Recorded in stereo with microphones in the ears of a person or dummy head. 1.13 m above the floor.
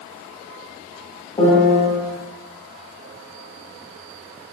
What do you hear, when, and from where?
1.4 s a piano: 15° left (ahead or behind), 1.0 m